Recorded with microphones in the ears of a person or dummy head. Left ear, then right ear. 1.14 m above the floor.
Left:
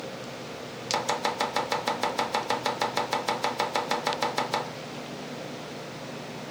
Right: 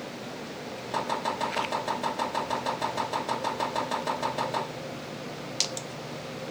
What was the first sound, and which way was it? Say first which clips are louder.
Chopping: left 2 dB; 50° left (ahead or behind).